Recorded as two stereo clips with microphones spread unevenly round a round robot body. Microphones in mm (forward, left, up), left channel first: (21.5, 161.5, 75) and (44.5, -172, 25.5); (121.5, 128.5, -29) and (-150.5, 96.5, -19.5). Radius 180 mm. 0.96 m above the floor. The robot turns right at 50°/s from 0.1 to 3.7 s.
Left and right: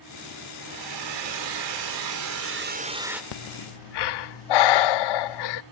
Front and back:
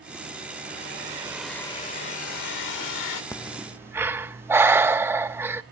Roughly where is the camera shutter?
I don't hear a camera shutter.